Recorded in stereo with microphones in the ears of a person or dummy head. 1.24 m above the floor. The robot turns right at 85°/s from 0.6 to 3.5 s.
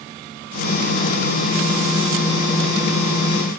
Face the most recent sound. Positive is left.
No sound to turn to.